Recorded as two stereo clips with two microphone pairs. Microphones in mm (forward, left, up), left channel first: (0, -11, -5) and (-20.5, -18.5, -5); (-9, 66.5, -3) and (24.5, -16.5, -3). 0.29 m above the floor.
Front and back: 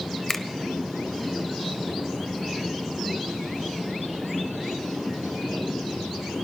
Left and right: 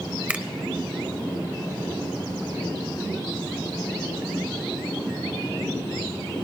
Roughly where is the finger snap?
Ahead.